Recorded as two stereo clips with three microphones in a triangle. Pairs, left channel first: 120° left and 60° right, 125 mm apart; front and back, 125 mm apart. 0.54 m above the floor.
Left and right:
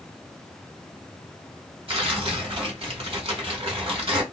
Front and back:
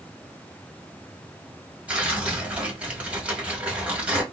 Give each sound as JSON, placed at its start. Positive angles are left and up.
{"t": 1.9, "sound": "tearing paper", "azimuth_deg": -100, "distance_m": 1.2}